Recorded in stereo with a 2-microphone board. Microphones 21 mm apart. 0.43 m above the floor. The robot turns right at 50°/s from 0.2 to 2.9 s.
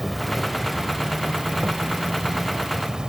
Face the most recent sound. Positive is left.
turn(degrees=-35)